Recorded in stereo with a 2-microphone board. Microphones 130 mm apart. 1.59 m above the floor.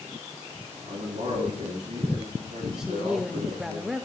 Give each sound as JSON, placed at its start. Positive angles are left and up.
{"t": 0.8, "sound": "a man speaking", "side_deg": -85, "distance_m": 7.5}
{"t": 2.8, "sound": "a woman speaking", "side_deg": -5, "distance_m": 0.5}